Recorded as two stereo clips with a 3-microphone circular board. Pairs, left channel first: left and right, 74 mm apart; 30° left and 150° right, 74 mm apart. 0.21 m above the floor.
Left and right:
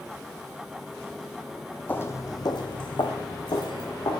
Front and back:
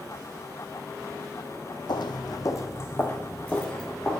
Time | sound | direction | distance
1.9 | footsteps | 25° left | 0.5 m